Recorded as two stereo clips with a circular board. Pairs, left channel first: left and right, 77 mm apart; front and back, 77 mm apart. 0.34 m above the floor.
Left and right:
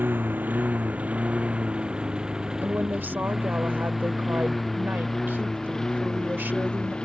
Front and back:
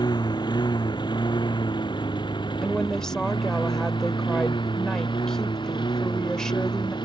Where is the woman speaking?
75° right.